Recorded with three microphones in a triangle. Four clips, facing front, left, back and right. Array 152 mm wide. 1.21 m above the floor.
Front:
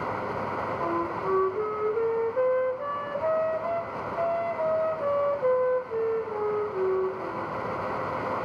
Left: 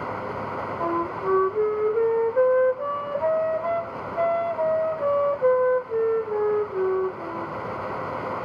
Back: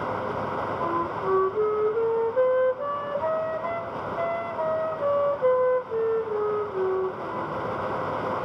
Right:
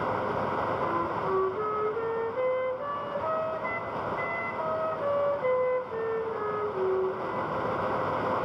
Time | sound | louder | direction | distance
0.8 | a flute | left 3 dB, back 1 dB | 105° left | 1.1 m